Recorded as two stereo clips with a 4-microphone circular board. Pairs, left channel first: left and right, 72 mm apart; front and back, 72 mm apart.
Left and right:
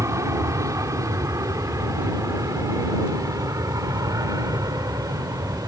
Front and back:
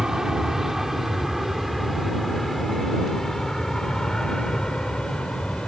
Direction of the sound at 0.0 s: 100° right.